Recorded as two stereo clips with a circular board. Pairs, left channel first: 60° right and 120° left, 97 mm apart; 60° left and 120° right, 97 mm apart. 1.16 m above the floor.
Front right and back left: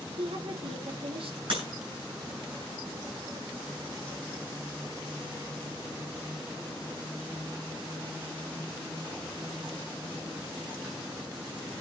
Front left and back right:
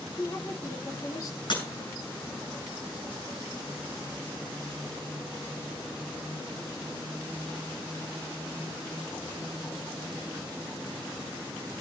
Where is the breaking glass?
95° left, 8.5 m.